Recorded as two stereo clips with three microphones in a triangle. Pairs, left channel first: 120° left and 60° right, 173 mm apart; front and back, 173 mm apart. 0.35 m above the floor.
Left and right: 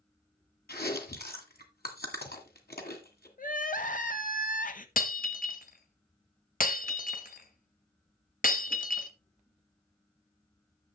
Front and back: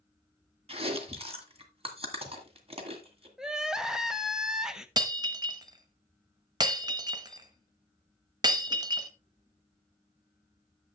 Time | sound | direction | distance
0.7 | chewing | 130° left | 1.8 m
3.4 | crying | 95° left | 0.7 m
5.0 | breaking glass | 120° left | 1.1 m